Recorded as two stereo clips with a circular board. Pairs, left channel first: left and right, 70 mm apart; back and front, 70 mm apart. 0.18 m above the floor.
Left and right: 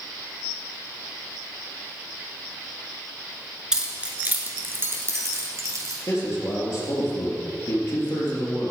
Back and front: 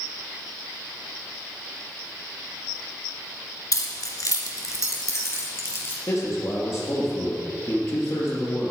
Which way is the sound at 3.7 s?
170° right.